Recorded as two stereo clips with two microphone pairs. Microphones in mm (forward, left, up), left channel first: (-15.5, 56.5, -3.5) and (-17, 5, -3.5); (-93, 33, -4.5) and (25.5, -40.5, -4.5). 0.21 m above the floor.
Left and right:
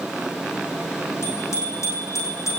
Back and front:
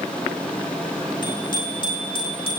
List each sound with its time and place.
1.2 s a bicycle bell: 95° left, 8.5 m; by 2.6 s 105° left, 7.5 m